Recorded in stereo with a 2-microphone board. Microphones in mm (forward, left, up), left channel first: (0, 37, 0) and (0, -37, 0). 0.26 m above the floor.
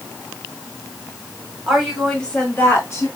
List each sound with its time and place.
1.7 s a woman speaking: 5° right (ahead or behind), 1.6 m; by 3.1 s 40° left (ahead or behind), 1.7 m